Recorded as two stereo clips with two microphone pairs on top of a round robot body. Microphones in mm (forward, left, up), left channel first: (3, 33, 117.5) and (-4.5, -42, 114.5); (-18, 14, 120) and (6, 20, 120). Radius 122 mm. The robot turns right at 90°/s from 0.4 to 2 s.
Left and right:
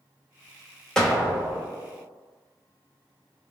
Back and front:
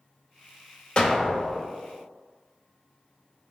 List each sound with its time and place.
1.0 s an explosion: 170° left, 1.6 m; by 1.6 s 130° right, 1.6 m